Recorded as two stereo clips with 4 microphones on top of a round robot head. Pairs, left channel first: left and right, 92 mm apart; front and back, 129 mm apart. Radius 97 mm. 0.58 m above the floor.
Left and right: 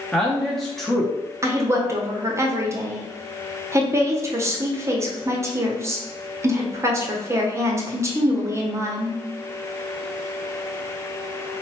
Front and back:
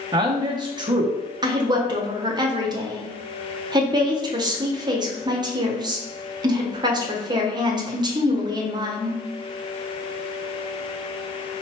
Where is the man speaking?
175° left, 0.7 m.